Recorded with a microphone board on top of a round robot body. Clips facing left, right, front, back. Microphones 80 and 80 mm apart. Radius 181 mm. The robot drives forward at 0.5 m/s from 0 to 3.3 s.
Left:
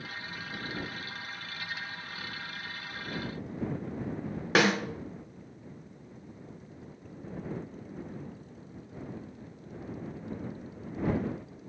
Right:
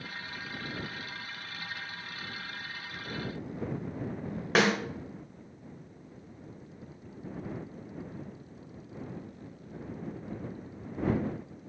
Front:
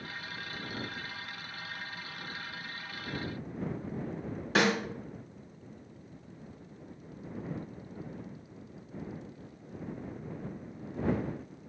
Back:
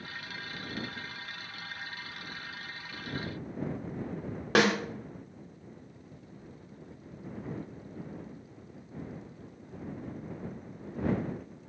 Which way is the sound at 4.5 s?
175° left.